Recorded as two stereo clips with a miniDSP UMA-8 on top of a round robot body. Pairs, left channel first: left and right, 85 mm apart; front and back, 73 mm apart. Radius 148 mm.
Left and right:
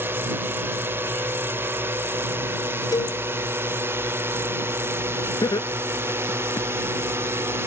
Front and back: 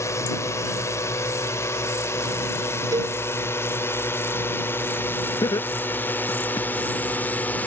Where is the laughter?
45° left.